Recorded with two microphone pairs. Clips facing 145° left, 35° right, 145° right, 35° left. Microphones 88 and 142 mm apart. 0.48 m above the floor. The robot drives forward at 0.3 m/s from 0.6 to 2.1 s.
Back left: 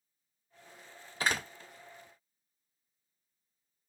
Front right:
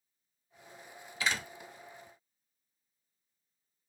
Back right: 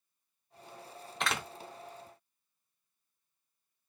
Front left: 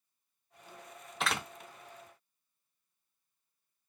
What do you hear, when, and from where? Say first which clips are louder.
1.2 s a door slam: back left 2 dB, even; 120° left, 0.5 m; by 1.5 s 130° left, 0.6 m